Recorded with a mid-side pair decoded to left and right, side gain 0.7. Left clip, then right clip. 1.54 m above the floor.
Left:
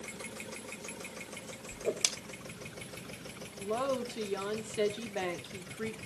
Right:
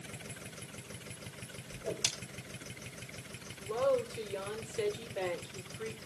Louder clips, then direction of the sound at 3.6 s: Right 2 dB; 45° left.